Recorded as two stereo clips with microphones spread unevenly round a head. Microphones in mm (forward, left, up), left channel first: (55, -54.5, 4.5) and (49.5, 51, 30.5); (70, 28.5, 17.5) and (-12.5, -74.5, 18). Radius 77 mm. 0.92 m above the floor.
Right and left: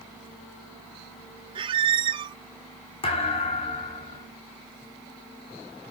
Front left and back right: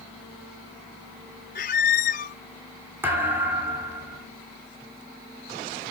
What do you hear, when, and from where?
1.6 s a squeak: 80° left, 0.5 m
3.0 s a thud: 55° right, 4 m